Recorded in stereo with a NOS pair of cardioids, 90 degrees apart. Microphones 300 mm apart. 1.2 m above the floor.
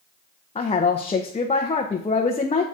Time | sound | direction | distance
0.6 | a woman speaking | 20° left | 0.8 m